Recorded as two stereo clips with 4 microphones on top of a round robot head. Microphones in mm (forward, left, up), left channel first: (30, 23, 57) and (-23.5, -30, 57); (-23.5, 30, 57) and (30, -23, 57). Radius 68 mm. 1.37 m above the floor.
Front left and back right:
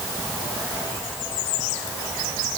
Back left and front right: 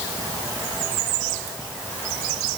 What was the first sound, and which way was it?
Only background noise.